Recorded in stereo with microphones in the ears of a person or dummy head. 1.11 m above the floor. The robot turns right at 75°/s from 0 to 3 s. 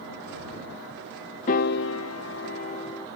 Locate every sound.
1.5 s a piano: 50° left; by 3.1 s 165° left